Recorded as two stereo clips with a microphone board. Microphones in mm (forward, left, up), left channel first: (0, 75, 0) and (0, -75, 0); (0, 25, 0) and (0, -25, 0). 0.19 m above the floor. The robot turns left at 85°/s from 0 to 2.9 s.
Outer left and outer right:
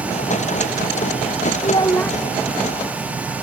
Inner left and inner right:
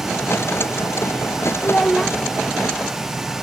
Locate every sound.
1.6 s a child speaking: 45° left; by 2.2 s straight ahead